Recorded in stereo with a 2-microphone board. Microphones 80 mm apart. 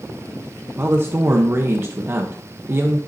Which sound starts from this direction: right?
A man speaking, at 0.8 s.